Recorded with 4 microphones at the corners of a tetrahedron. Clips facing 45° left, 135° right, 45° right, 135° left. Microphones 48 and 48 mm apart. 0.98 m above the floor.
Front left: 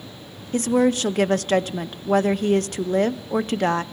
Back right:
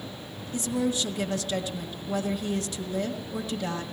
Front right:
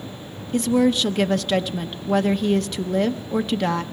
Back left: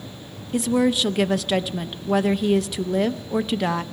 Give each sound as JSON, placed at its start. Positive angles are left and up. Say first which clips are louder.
{"t": 0.5, "sound": "a woman speaking", "louder": "front left 9 dB, front right 1 dB", "azimuth_deg": 50, "distance_m": 0.7}